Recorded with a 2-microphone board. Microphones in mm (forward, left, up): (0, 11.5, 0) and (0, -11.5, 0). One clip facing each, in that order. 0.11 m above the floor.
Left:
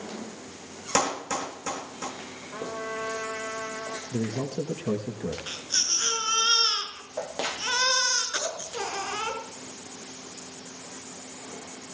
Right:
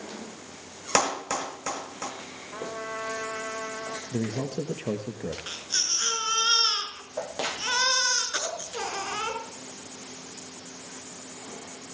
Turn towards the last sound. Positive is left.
turn(degrees=-5)  # may be behind; listen again after turning